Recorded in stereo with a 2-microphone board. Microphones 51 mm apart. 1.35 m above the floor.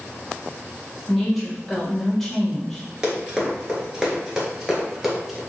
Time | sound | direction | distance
1.1 | a woman speaking | 5° left (ahead or behind) | 1.1 m
3.0 | running footsteps | 15° right (ahead or behind) | 1.3 m